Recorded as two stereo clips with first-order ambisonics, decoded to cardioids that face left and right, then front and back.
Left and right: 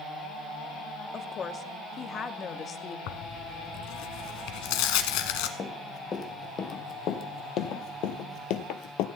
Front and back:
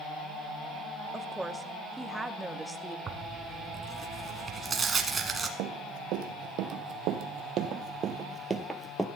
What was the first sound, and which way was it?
A woman speaking, 100° left.